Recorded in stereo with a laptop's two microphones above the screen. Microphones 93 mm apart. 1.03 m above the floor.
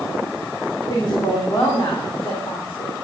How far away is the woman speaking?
About 2.5 m.